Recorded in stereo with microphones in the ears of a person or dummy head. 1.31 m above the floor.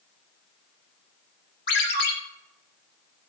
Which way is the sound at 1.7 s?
65° left (ahead or behind).